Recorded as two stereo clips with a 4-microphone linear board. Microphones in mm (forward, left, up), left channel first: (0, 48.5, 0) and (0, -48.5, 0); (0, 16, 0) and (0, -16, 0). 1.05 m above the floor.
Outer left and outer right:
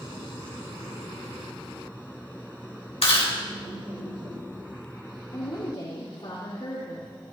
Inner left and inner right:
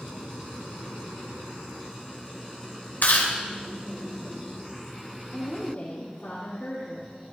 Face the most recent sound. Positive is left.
turn(degrees=55)  # may be behind; listen again after turning